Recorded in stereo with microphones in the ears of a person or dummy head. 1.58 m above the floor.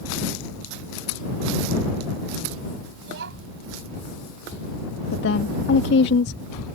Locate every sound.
3.0 s a child speaking: 60° right (ahead or behind)
5.1 s a woman speaking: 65° left (ahead or behind)